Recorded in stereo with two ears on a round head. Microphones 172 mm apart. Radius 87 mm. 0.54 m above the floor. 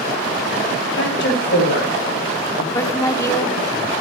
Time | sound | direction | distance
0.9 | a woman speaking | 70° left (ahead or behind) | 5.5 m
2.7 | a woman speaking | 20° left (ahead or behind) | 1.1 m